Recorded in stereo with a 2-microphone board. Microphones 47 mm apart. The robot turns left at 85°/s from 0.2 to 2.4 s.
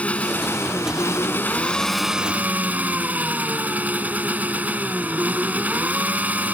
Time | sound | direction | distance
0.0 | an engine running | 150° left | ?